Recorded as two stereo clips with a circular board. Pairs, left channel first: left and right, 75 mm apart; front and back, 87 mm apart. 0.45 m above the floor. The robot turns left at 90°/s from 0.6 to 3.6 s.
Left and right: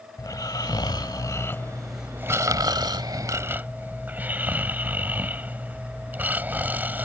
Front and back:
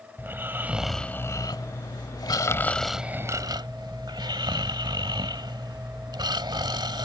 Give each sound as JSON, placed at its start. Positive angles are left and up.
{"t": 0.2, "sound": "snoring", "azimuth_deg": 115}